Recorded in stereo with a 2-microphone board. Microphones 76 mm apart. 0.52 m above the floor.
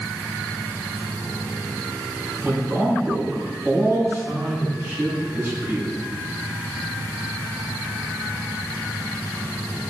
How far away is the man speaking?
About 4 m.